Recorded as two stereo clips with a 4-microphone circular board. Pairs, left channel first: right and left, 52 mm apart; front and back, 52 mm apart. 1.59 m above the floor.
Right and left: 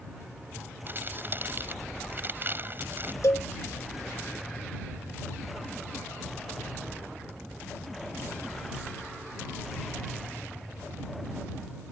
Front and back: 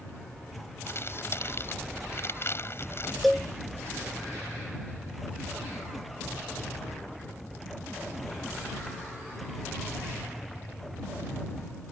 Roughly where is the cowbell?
Right.